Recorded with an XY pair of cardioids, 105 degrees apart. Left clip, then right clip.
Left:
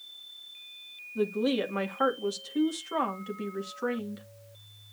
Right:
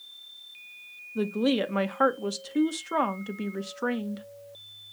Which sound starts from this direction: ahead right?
A woman speaking, at 1.1 s.